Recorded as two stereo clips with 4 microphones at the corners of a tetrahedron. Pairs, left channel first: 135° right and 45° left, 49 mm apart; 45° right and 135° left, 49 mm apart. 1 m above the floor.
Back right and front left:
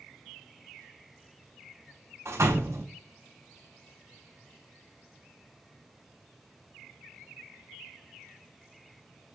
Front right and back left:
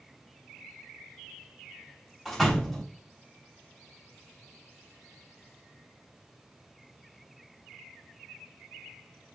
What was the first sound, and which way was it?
A door slam, 45° left.